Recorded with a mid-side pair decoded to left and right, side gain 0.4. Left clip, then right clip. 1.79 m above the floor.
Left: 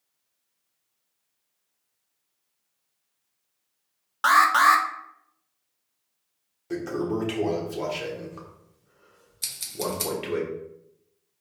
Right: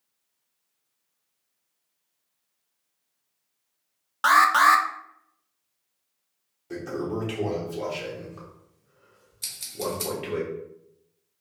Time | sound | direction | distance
4.2 | an alarm | 5° right | 0.5 m
6.7 | a toilet flushing | 30° left | 1.1 m
9.4 | scissors | 35° left | 1.0 m